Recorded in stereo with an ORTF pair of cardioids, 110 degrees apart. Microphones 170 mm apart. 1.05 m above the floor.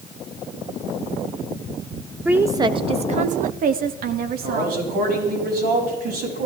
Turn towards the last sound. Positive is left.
turn(degrees=-65)